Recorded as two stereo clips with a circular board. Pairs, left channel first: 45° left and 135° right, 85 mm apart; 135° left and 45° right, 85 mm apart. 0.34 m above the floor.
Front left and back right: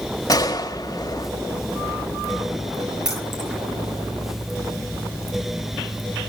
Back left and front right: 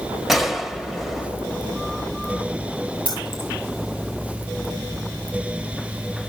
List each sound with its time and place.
0.3 s a gunshot: 45° left, 1.2 m
3.0 s keys jangling: 50° right, 5.5 m